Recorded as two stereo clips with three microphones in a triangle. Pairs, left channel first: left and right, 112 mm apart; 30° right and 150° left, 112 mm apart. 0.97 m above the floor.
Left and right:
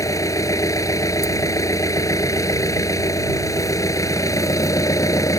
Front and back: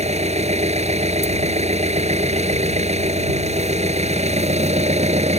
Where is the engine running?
150° left.